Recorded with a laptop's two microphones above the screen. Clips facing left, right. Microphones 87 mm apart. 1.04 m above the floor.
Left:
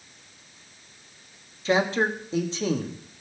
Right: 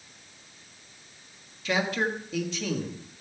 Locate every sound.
1.6 s a man speaking: 30° left (ahead or behind), 1.4 m